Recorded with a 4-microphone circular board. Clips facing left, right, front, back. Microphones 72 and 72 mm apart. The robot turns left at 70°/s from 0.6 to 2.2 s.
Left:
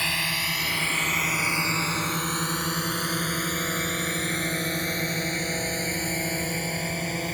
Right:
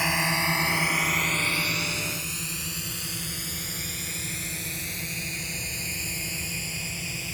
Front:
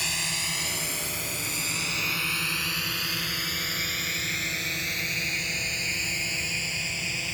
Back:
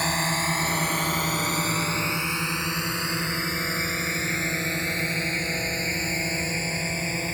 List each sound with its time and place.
0.0 s a drone: 160° right; by 7.3 s 130° left